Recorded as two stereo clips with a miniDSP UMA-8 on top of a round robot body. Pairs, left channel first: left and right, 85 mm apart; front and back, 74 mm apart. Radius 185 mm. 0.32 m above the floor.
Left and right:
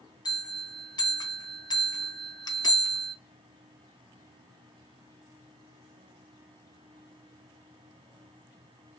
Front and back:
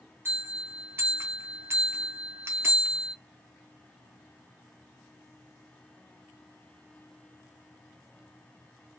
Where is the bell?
125° left, 1.3 m.